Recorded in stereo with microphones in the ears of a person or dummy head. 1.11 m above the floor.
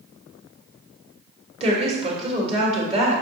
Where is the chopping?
No chopping in this recording.